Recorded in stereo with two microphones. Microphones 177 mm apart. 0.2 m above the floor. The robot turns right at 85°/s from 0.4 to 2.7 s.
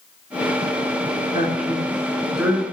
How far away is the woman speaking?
About 2.5 m.